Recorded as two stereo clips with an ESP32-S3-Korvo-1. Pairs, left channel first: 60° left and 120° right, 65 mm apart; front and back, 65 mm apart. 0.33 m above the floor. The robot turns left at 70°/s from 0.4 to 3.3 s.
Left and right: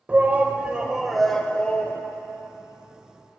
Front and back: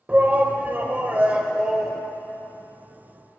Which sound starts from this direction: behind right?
A shout, at 0.1 s.